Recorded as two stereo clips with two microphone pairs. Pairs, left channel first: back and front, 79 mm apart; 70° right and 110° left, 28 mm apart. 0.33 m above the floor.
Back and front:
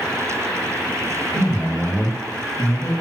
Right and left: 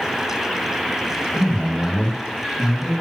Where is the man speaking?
50° right, 1.9 m; by 2.9 s 140° right, 1.8 m.